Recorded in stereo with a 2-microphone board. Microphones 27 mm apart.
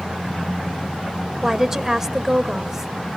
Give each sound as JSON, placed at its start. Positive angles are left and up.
{"t": 1.4, "sound": "a woman speaking", "side_deg": -10, "distance_m": 1.0}